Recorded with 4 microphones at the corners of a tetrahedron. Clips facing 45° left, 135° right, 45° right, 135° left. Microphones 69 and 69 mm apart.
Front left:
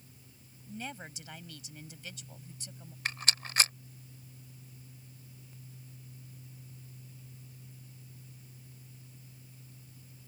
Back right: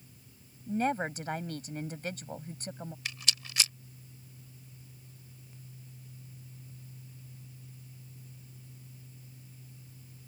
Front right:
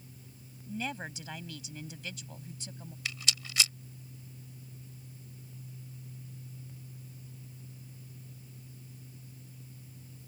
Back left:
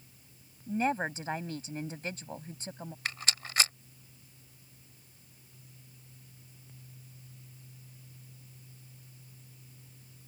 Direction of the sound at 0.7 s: 175° right.